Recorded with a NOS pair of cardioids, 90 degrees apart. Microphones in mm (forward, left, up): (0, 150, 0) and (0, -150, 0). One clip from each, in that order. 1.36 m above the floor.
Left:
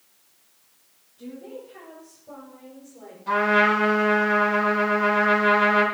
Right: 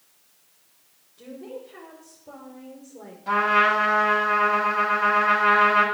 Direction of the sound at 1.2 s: 55° right.